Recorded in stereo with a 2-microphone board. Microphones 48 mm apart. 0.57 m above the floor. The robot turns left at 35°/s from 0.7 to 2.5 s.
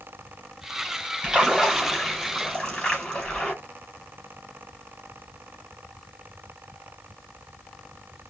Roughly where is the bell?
No bell in this recording.